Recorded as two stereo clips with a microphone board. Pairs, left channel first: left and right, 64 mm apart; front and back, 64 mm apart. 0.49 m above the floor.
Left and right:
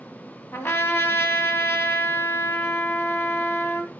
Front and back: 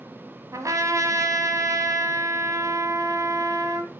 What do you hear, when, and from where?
0.5 s a trumpet: 140° left, 1.8 m